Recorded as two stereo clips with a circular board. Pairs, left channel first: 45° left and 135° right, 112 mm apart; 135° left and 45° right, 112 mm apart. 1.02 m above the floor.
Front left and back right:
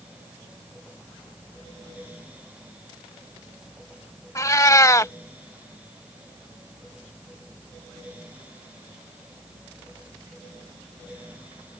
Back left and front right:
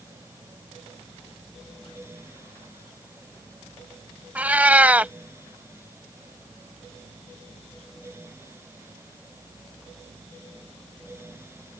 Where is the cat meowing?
20° left.